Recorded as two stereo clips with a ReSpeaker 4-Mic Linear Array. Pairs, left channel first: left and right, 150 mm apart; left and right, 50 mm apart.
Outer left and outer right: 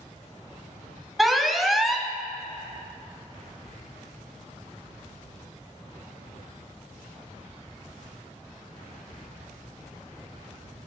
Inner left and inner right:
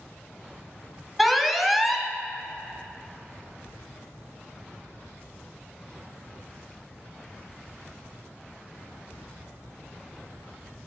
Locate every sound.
1.2 s an alarm: centre (ahead or behind), 1.2 m